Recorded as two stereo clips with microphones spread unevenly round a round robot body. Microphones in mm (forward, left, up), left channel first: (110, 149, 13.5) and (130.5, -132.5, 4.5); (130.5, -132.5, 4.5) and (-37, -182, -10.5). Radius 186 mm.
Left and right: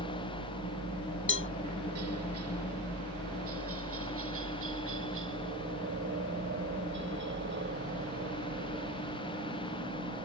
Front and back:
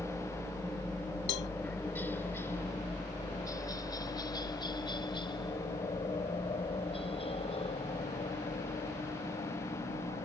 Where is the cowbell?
45° left.